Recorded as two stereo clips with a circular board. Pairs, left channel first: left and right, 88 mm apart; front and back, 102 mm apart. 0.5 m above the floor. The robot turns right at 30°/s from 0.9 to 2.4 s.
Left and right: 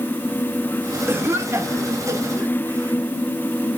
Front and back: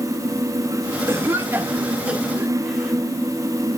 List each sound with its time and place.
1.1 s a cough: 140° right, 1.2 m; by 3.0 s 100° right, 1.2 m